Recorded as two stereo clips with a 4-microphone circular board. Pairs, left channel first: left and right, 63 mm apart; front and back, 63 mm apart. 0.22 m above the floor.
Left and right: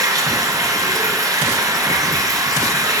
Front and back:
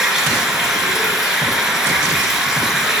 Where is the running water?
100° right, 1.6 m.